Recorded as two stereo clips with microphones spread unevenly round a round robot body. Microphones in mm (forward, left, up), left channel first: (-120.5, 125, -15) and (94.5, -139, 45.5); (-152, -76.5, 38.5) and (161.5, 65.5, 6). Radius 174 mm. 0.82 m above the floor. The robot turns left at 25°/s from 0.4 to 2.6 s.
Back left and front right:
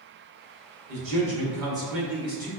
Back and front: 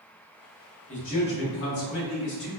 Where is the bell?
I don't hear a bell.